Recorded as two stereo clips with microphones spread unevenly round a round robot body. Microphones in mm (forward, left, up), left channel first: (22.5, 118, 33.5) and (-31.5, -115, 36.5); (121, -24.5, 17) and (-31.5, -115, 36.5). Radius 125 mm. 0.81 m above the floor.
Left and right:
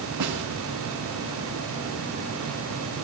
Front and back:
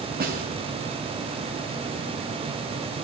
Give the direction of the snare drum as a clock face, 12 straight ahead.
4 o'clock.